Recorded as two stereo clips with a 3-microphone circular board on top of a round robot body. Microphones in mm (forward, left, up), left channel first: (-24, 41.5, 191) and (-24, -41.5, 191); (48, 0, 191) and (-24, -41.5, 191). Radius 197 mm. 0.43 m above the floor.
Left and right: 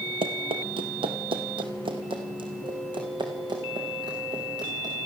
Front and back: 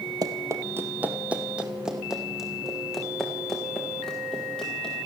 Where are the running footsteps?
105° right, 1.2 m; by 4.9 s 50° right, 5 m.